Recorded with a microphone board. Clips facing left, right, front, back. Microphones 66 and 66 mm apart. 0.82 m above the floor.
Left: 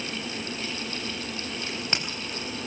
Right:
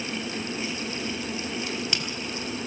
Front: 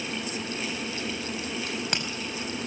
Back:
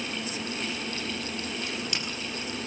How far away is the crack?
About 4.5 m.